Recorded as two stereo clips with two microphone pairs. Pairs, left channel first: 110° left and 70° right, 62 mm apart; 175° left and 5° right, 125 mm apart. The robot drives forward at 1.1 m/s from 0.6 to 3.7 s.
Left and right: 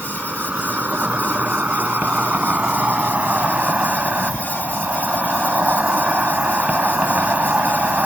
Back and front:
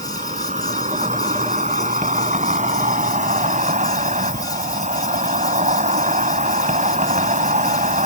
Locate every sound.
0.0 s an insect: straight ahead